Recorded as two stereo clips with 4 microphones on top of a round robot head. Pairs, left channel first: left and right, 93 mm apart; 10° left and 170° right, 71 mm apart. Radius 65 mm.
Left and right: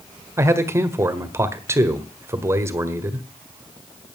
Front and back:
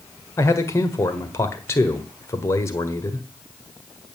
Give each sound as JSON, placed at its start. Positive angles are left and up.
{"t": 0.4, "sound": "a man speaking", "azimuth_deg": -35, "distance_m": 1.6}